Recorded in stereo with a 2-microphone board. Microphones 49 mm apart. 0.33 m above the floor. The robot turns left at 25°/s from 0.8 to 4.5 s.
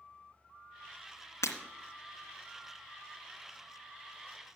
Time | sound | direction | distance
1.4 | breaking glass | 75° left (ahead or behind) | 2.5 m